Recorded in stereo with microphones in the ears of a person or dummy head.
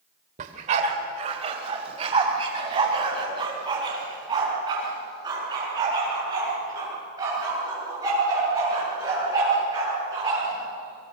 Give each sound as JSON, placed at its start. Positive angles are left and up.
{"t": 0.4, "sound": "a dog barking", "side_deg": -45, "distance_m": 1.9}